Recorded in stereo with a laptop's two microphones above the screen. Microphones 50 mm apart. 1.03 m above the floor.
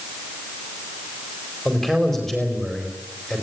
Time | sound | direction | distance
1.6 | a man speaking | 5° left (ahead or behind) | 4.5 m